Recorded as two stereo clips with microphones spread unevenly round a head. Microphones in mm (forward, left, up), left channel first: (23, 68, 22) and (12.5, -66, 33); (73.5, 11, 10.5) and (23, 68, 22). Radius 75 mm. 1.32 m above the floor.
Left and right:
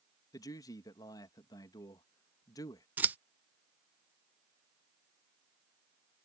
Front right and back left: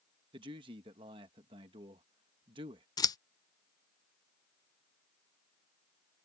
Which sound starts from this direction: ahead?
Scissors, at 3.0 s.